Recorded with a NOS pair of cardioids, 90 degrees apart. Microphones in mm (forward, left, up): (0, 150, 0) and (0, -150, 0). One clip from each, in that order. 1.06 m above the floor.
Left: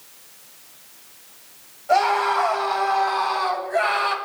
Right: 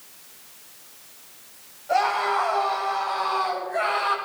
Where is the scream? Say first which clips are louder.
Left 3 dB; 40° left, 9.5 m; by 4.2 s 45° left, 7.5 m.